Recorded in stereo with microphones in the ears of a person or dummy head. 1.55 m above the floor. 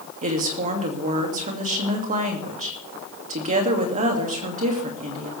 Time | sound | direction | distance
0.2 | a woman speaking | 45° right (ahead or behind) | 2.5 m